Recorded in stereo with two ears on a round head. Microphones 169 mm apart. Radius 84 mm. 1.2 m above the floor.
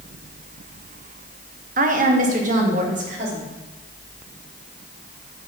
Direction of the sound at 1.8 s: 45° right (ahead or behind).